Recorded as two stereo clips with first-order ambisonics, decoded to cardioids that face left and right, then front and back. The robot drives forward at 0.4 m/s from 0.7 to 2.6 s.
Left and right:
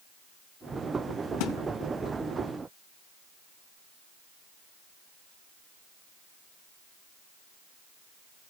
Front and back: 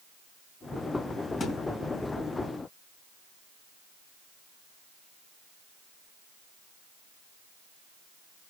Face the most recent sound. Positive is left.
turn(degrees=80)